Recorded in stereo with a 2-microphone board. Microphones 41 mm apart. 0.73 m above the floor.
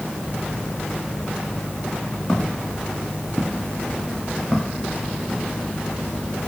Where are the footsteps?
20° left (ahead or behind), 6.5 m; by 5.4 s 15° right (ahead or behind), 7.5 m.